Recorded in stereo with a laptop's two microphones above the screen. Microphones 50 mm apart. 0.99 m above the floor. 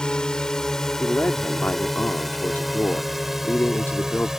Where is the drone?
15° left (ahead or behind); by 4.4 s 10° right (ahead or behind).